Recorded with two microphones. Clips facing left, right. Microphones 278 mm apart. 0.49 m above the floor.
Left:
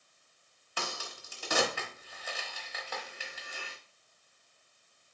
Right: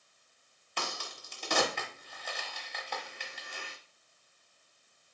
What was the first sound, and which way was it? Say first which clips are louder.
A crack: even; 5° left (ahead or behind).